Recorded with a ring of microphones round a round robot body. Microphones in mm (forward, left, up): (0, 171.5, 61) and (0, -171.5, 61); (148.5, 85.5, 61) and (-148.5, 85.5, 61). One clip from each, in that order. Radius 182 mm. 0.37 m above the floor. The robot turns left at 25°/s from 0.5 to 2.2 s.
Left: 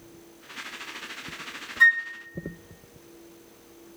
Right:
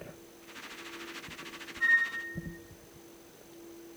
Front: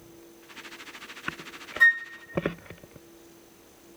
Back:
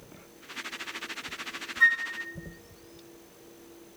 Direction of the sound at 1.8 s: 70° left.